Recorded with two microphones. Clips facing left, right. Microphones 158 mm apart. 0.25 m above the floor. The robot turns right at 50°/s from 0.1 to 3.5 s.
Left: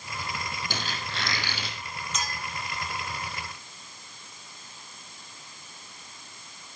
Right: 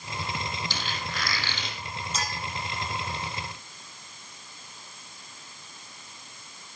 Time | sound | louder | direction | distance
0.7 | a squeak | even | 130° left | 4 m
2.1 | a clink | right 1 dB | 35° right (ahead or behind) | 6.5 m